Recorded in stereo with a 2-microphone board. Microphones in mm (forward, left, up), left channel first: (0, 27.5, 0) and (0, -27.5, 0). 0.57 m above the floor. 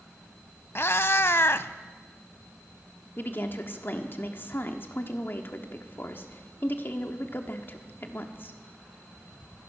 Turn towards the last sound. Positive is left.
turn(degrees=40)  # may be behind; listen again after turning